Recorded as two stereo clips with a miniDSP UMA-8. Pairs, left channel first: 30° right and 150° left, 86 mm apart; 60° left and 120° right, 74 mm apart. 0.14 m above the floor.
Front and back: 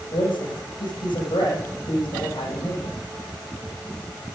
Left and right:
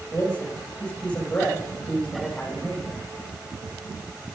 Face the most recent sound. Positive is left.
turn(degrees=-10)